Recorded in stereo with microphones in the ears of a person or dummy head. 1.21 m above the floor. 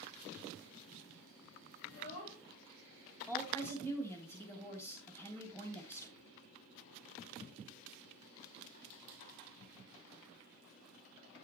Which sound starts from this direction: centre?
A woman speaking, at 3.3 s.